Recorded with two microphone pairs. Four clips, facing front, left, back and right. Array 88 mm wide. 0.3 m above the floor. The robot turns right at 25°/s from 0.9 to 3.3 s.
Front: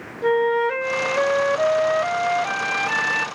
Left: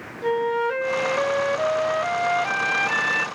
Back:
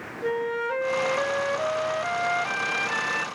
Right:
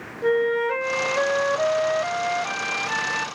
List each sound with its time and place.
0.2 s a flute: 25° right, 1.0 m; by 3.3 s 35° left, 1.0 m